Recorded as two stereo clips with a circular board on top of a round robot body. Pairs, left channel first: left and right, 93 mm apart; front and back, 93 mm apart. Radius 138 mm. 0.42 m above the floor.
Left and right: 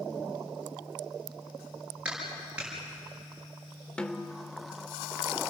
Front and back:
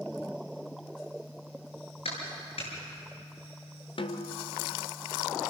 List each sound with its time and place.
2.0 s a clap: 10° right, 7 m
4.0 s a snare drum: 10° left, 1.2 m